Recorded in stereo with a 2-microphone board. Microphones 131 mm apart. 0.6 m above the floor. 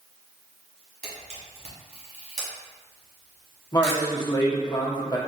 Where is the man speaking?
30° left (ahead or behind), 0.8 m.